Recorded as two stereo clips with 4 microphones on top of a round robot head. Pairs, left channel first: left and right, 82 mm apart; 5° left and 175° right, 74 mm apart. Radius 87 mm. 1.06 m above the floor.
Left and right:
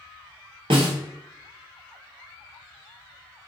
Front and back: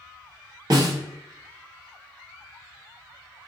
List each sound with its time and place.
0.7 s a snare drum: 120° right, 0.7 m